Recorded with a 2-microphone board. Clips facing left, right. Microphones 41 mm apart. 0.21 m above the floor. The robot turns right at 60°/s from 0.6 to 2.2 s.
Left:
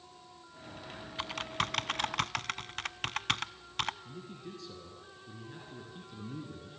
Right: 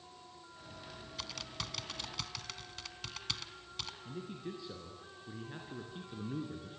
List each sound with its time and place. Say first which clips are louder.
1.2 s typing on a keyboard: left 10 dB; 35° left (ahead or behind), 0.6 m; by 4.0 s 55° left (ahead or behind), 0.6 m
4.0 s a man speaking: right 2 dB; 20° right (ahead or behind), 3 m